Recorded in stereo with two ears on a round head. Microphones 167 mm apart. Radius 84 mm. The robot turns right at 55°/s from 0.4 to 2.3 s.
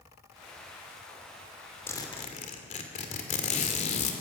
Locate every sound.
1.9 s a zipper: 15° left (ahead or behind), 2.5 m; by 4.1 s 35° left (ahead or behind), 2.5 m